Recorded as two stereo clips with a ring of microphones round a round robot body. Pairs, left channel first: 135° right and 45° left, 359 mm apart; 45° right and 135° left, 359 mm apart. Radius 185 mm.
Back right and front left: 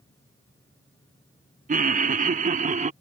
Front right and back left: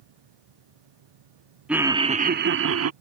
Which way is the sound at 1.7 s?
55° left.